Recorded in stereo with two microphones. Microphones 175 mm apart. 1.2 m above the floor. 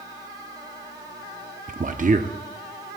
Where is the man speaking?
50° right (ahead or behind), 0.7 m.